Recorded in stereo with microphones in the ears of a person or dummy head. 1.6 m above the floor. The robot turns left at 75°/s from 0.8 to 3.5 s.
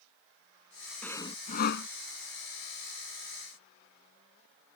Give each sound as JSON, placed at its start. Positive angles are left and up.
{"t": 1.0, "sound": "sawing", "azimuth_deg": 175}